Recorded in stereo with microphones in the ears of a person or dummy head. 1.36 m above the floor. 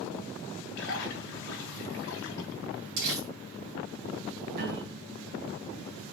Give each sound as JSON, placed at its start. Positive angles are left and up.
{"t": 0.8, "sound": "a splash", "side_deg": 65, "distance_m": 1.5}
{"t": 3.0, "sound": "crumpling", "side_deg": -60, "distance_m": 2.5}
{"t": 4.5, "sound": "a piano", "side_deg": -55, "distance_m": 3.0}